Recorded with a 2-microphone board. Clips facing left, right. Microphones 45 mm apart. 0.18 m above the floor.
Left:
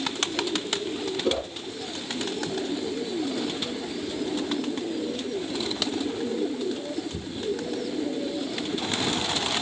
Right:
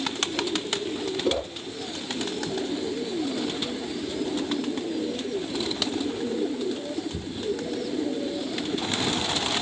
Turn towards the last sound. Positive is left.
turn(degrees=-5)  # may be behind; listen again after turning